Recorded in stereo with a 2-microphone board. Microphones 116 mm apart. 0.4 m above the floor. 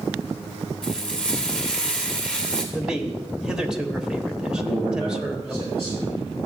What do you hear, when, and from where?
0.8 s frying: 10° left (ahead or behind), 3.5 m
2.7 s a man speaking: 5° right (ahead or behind), 1.2 m
4.5 s a man speaking: 65° right (ahead or behind), 3 m